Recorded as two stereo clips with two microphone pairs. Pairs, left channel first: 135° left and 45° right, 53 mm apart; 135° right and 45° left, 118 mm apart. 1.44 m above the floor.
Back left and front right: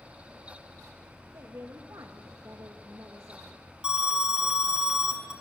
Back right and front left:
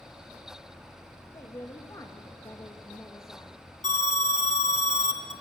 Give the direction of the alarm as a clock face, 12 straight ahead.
4 o'clock.